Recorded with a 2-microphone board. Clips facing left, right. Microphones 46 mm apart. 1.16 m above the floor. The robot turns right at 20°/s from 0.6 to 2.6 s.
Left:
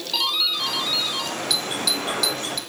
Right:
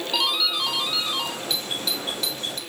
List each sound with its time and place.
0.1 s a doorbell: 10° right (ahead or behind), 5 m; by 1.4 s 25° right (ahead or behind), 5 m
1.5 s a doorbell: 25° right (ahead or behind), 1.4 m; by 2.6 s 35° right (ahead or behind), 1.4 m